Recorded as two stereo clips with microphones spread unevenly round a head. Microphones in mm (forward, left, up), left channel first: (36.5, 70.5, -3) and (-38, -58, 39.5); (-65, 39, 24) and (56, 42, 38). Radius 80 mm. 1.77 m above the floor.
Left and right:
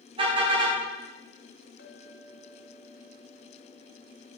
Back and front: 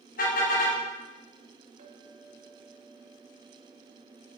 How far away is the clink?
About 3 m.